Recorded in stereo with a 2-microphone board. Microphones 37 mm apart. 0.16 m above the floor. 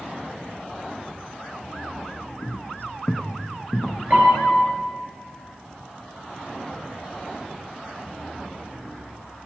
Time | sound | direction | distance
2.4 | footsteps | 65° left (ahead or behind) | 0.6 m
4.1 | a piano | 55° right (ahead or behind) | 1.5 m